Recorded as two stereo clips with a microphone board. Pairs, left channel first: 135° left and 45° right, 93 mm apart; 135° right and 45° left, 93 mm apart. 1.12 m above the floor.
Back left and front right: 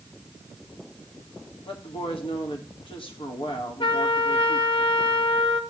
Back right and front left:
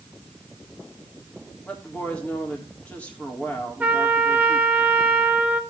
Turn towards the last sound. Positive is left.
turn(degrees=120)